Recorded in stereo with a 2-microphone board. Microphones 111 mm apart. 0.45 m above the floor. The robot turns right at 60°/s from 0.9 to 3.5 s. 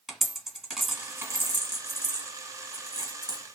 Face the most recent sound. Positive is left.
turn(degrees=-20)  # may be behind; listen again after turning